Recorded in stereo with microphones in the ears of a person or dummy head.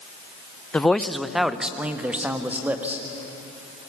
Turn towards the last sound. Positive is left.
turn(degrees=-15)  # may be behind; listen again after turning